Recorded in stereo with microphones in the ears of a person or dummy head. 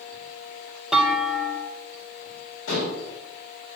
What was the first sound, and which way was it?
A clunk, centre (ahead or behind).